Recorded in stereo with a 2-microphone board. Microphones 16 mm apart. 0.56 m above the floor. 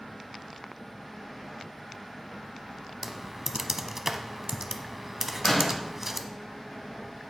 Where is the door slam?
30° left (ahead or behind), 2 m.